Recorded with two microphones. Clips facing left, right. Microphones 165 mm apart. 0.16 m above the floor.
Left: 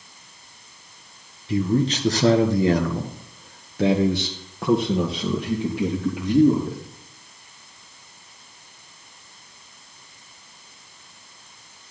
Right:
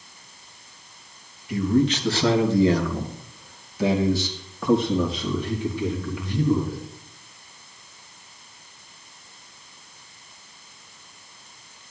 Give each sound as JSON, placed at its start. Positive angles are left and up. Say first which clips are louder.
{"t": 1.5, "sound": "a man speaking", "louder": "right 1 dB", "side_deg": 30, "distance_m": 1.9}